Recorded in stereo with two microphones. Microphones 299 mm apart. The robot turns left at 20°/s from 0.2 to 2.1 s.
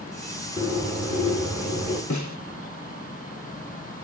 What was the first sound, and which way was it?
A bird, 40° left (ahead or behind).